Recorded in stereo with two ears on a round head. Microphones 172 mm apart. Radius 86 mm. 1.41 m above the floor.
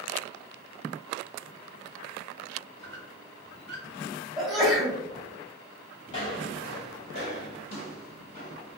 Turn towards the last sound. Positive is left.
turn(degrees=40)  # may be behind; listen again after turning